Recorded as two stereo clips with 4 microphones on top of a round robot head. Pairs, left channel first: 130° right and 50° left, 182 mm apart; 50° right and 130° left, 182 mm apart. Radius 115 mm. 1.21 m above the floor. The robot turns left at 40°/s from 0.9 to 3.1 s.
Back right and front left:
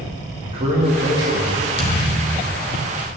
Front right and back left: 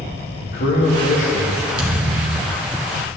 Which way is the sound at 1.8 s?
175° right.